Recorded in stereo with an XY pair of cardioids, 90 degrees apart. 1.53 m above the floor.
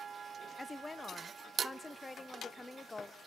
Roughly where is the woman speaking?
Ahead.